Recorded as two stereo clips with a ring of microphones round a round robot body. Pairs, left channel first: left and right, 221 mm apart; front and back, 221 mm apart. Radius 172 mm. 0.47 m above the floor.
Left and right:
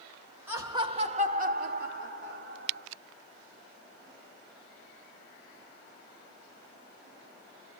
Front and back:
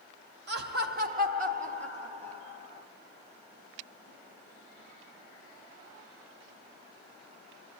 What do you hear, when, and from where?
0.5 s laughter: 170° right, 1.0 m; by 2.9 s 110° right, 1.8 m